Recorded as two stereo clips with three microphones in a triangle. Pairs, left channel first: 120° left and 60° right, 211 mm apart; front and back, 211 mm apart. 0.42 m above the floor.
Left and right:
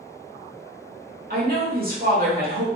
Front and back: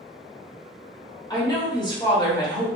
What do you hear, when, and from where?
1.3 s a woman speaking: 60° right, 1.1 m